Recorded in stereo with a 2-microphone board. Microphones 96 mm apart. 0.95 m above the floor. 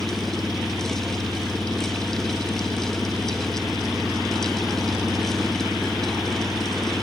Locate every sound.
0.0 s an engine running: 5° right (ahead or behind)